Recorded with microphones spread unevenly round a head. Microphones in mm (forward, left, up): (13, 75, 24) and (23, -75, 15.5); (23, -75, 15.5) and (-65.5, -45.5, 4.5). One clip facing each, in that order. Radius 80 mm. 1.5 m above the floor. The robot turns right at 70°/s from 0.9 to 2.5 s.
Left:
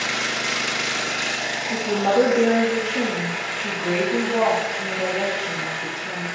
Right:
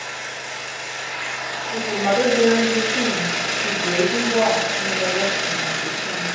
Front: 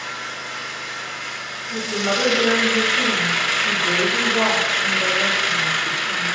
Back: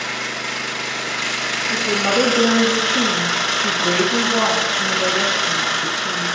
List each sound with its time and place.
0.0 s an engine running: 115° left, 0.7 m; by 6.4 s 135° right, 0.7 m
1.7 s a woman speaking: 120° left, 2.5 m; by 6.3 s 175° left, 2.5 m